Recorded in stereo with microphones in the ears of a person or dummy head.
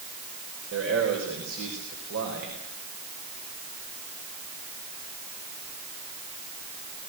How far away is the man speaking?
About 4.5 m.